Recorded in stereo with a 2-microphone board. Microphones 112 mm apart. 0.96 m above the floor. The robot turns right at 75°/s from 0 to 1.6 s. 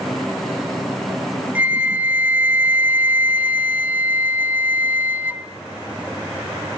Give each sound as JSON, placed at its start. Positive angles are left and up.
{"t": 1.6, "sound": "a flute", "side_deg": -10, "distance_m": 0.9}